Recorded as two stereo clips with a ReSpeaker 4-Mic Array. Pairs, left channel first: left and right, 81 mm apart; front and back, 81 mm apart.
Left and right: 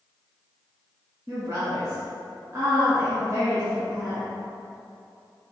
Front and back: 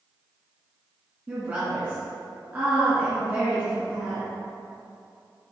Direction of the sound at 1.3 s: 120° right.